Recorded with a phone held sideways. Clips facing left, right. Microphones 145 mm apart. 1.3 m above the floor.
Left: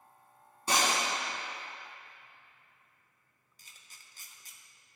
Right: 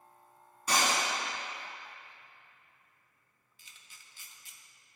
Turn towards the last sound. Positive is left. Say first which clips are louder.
# even
turn(degrees=40)  # may be behind; listen again after turning